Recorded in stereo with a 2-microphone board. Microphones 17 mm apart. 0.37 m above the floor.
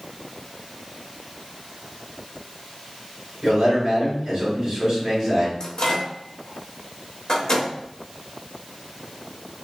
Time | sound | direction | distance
3.4 | a man speaking | 40° right (ahead or behind) | 2.0 m
5.6 | a microwave | 35° left (ahead or behind) | 0.8 m